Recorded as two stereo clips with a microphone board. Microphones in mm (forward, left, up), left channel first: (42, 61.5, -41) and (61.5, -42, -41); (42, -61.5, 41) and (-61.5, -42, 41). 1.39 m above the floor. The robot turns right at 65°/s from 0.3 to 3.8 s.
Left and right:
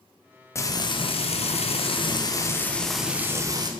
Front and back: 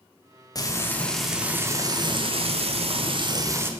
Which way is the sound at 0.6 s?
35° left.